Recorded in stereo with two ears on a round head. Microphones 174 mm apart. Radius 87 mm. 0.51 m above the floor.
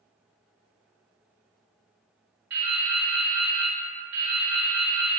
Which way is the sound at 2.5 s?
65° right (ahead or behind).